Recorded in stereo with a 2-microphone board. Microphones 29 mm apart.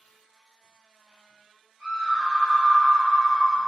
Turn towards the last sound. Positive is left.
turn(degrees=-10)  # may be behind; listen again after turning